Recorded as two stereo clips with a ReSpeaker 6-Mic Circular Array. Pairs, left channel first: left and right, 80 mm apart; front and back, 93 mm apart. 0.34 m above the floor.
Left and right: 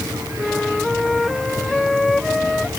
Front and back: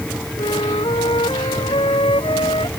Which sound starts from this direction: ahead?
A flute, at 0.4 s.